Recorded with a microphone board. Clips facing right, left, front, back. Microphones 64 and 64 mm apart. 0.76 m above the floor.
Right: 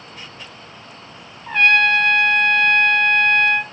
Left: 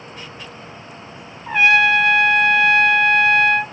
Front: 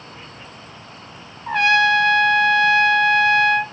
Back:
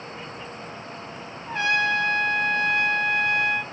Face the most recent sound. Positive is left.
turn(degrees=10)